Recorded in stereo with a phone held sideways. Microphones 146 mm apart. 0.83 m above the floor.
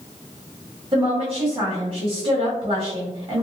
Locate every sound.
0.9 s a woman speaking: 35° right (ahead or behind), 1.2 m